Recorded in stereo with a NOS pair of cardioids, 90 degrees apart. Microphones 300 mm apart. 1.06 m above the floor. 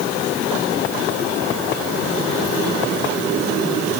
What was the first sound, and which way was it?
Only background noise.